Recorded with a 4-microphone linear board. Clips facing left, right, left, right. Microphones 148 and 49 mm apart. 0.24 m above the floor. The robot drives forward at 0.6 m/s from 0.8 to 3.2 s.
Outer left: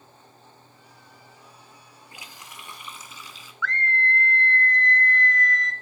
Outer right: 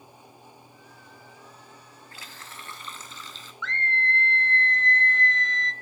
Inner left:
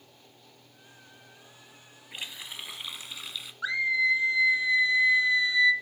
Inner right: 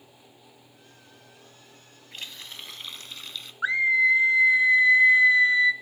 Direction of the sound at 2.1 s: 15° left (ahead or behind).